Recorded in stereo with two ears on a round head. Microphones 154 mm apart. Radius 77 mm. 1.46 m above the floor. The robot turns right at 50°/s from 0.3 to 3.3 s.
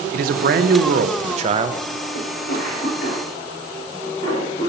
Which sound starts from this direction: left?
A cough, at 2.1 s.